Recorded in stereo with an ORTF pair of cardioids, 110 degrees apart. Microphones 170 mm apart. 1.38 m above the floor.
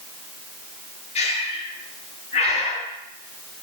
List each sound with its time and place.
1.1 s breathing: 40° left, 1.5 m